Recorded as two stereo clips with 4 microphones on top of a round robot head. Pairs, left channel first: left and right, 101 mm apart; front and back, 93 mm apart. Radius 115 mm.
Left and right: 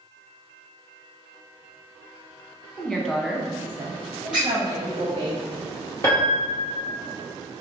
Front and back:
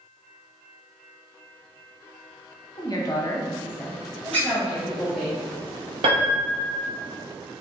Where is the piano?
160° left, 0.8 m.